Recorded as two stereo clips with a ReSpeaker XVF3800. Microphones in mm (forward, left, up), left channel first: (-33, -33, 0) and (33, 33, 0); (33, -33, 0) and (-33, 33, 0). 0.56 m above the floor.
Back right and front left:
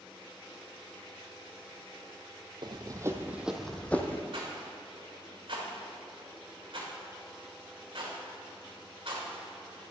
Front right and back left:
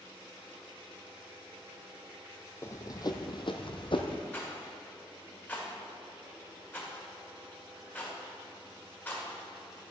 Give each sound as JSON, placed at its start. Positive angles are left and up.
{"t": 2.6, "sound": "running footsteps", "azimuth_deg": 15, "distance_m": 1.0}
{"t": 4.3, "sound": "a rattle", "azimuth_deg": 25, "distance_m": 2.0}